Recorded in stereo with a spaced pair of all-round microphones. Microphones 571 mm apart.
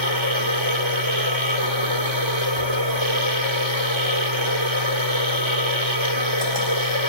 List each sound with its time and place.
0.0 s a machine running: 50° right (ahead or behind), 2 m